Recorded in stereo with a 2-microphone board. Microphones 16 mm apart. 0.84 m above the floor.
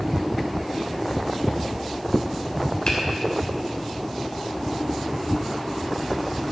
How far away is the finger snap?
About 3 m.